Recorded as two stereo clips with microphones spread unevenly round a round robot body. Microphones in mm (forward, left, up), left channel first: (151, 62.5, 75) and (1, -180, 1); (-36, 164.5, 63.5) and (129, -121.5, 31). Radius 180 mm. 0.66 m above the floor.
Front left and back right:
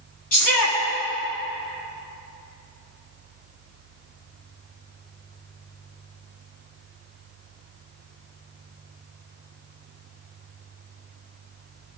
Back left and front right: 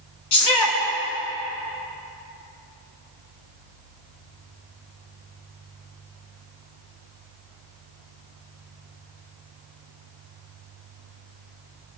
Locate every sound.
0.3 s a shout: 100° left, 7 m